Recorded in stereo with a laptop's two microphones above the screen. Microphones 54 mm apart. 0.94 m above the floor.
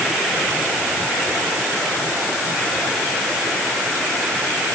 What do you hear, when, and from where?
Only background noise.